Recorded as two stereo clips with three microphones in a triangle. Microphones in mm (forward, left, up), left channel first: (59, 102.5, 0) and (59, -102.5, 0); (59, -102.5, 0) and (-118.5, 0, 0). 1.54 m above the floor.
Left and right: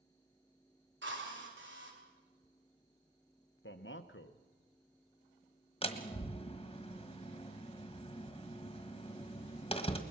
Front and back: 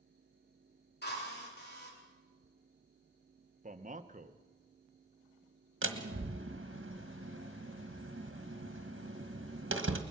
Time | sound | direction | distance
1.0 | a drill | 65° right | 4 m
3.6 | a man speaking | 105° left | 1.1 m
5.8 | a door slam | 150° left | 1.6 m